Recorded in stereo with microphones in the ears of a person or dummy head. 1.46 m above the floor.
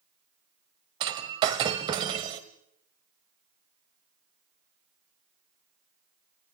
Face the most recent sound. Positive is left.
turn(degrees=-25)  # may be behind; listen again after turning